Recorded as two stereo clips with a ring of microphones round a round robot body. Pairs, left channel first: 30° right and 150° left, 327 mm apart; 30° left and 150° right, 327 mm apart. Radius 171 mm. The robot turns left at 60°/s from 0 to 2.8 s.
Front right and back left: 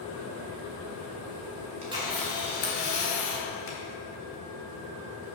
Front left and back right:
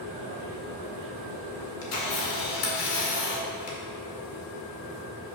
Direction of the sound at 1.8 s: 80° left.